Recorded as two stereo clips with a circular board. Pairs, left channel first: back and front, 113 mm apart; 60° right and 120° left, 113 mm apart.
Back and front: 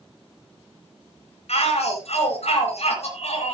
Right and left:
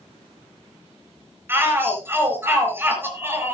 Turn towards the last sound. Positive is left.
turn(degrees=-170)